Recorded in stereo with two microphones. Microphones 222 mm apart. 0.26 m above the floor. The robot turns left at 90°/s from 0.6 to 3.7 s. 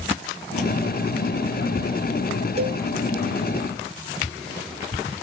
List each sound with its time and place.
2.6 s a cowbell: 30° right (ahead or behind), 0.9 m; by 2.8 s 10° right (ahead or behind), 0.9 m